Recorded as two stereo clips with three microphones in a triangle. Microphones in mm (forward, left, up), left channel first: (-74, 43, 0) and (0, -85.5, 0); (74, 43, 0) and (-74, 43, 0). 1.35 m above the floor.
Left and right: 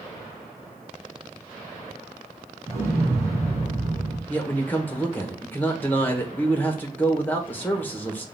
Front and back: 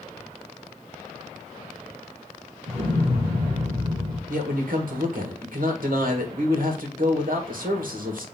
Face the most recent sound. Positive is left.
turn(degrees=-165)